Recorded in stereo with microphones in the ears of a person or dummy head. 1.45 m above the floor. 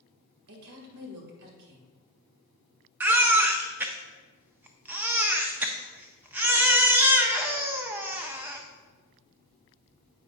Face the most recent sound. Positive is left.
turn(degrees=-5)  # may be behind; listen again after turning